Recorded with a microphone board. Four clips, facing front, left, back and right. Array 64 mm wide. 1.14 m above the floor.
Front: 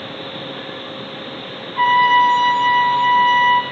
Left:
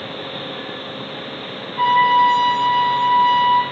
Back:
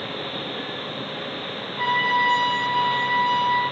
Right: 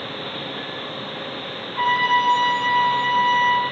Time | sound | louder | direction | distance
1.8 | a trumpet | left 5 dB, front 9 dB | 10° right | 4.5 m